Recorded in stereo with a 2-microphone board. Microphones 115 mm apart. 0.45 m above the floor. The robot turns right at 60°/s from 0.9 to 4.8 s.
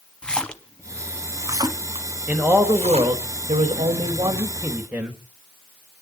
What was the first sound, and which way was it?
A splash, 10° left (ahead or behind).